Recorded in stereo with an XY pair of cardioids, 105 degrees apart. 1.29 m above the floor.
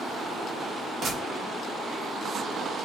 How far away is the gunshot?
About 1.5 m.